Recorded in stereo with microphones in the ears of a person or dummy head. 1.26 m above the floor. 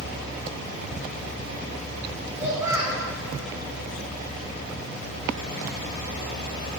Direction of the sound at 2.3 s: 10° right (ahead or behind).